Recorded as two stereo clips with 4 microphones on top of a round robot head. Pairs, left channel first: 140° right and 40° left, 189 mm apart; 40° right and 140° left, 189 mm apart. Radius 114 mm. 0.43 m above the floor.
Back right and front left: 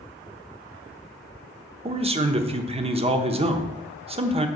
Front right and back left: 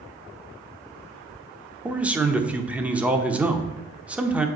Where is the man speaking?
60° left, 0.8 m.